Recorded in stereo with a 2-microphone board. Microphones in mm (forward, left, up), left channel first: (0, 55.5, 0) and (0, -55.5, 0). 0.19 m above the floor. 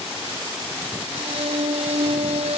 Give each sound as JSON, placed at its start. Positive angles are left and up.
{"t": 1.1, "sound": "a violin", "side_deg": -75}